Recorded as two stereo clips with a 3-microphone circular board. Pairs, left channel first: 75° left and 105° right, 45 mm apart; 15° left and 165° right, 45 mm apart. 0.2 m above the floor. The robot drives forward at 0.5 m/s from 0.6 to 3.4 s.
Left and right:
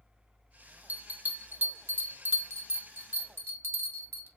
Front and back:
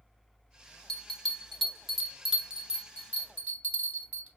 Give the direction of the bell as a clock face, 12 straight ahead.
2 o'clock.